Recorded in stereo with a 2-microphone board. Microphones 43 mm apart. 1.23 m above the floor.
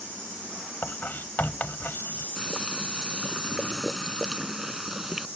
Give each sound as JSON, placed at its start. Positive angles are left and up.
{"t": 0.8, "sound": "writing", "side_deg": 50}
{"t": 2.4, "sound": "boiling", "side_deg": -5}